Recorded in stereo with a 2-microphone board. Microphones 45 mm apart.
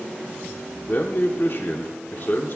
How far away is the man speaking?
About 0.8 m.